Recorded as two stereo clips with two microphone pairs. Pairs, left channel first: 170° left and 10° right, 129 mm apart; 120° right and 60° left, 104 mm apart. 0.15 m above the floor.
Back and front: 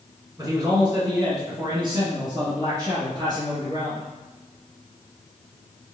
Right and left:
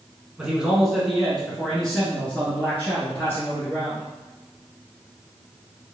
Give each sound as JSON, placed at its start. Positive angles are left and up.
{"t": 0.4, "sound": "a man speaking", "azimuth_deg": -10, "distance_m": 1.6}